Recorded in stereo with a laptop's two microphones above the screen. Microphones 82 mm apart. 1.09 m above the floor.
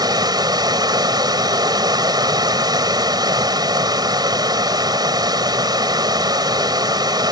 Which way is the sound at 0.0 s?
55° right (ahead or behind).